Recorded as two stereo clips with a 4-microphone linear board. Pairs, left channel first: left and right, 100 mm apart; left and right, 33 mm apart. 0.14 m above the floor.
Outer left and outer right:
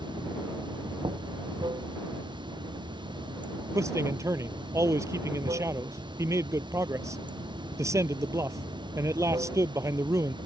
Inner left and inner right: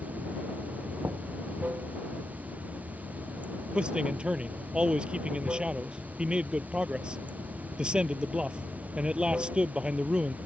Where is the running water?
50° right (ahead or behind).